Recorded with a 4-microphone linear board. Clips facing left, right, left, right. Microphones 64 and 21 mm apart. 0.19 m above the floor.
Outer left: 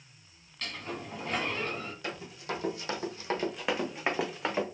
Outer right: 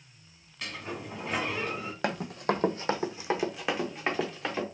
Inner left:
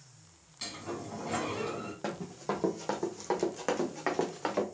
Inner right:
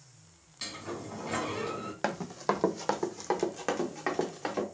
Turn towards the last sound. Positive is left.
turn(degrees=15)  # may be behind; listen again after turning